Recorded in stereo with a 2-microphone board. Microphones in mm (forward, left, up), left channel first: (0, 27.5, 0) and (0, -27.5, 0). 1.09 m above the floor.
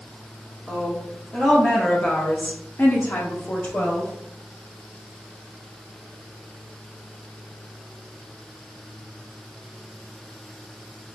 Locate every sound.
0.7 s a woman speaking: 5° left (ahead or behind), 1.5 m; by 4.1 s 35° left (ahead or behind), 1.0 m